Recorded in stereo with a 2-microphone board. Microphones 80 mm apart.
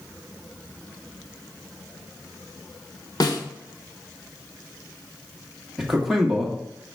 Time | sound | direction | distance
3.2 | a snare drum | 55° left (ahead or behind) | 0.9 m
5.8 | a man speaking | 5° right (ahead or behind) | 1.3 m